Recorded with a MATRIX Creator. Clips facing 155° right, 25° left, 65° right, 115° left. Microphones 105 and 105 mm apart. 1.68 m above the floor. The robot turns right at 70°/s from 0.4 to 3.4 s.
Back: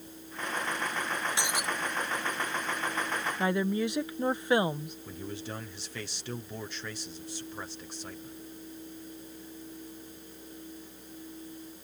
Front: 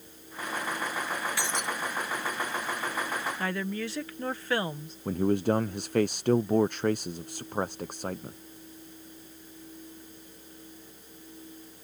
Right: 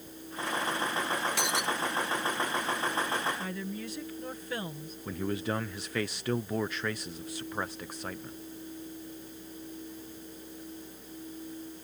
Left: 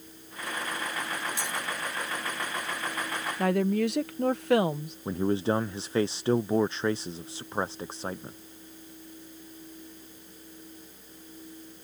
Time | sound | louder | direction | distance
1.4 | breaking glass | even, right 3 dB | 90° right | ?
3.4 | a woman speaking | back 4 dB, left 12 dB | 130° left | ?
5.0 | a man speaking | front 17 dB, left 6 dB | 55° left | ?